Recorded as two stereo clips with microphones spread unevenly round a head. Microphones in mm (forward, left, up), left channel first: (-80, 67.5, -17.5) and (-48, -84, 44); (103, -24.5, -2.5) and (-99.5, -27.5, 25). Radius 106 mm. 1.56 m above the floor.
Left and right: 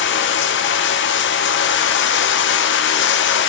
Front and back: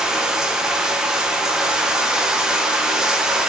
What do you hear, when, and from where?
0.0 s running water: 100° left, 0.7 m